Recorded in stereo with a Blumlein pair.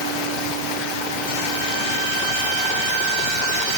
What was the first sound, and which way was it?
Only background noise.